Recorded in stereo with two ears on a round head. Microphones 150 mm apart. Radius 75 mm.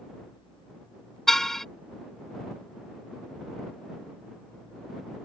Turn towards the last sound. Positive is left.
turn(degrees=0)  # may be behind; listen again after turning